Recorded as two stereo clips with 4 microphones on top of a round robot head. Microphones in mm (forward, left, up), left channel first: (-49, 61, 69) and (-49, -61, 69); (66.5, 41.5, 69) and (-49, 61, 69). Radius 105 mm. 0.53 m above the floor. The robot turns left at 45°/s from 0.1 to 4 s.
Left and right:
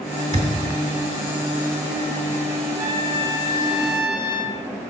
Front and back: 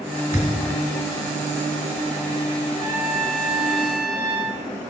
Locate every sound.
0.3 s a thud: 110° right, 1.4 m; by 0.8 s 130° right, 1.4 m
2.8 s a trumpet: 105° right, 1.5 m; by 4.6 s 160° right, 1.5 m